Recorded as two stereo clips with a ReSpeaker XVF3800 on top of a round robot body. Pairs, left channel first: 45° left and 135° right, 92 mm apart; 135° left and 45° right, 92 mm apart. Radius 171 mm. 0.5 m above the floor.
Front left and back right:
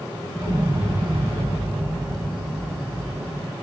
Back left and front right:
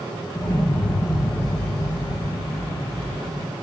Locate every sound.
0.3 s an explosion: 170° left, 1.1 m